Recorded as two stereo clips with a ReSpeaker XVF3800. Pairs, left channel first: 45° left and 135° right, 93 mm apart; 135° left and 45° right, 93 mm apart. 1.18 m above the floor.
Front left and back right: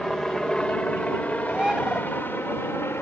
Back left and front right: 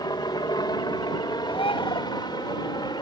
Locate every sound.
0.0 s a helicopter: 130° left; by 3.0 s 105° left
1.5 s a bird: 145° left